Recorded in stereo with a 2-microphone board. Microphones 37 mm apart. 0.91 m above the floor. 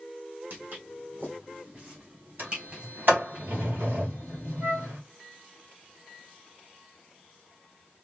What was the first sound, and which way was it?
Footsteps, 60° right (ahead or behind).